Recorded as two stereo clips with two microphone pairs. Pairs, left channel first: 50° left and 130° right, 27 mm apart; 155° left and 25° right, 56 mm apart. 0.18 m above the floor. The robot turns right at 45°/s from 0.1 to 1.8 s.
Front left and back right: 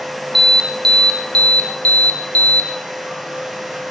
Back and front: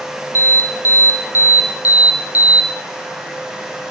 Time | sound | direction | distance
0.3 | an alarm | 35° right | 2.5 m